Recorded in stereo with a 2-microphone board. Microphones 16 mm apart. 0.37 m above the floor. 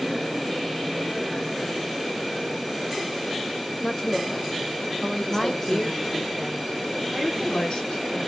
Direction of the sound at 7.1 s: 70° left (ahead or behind).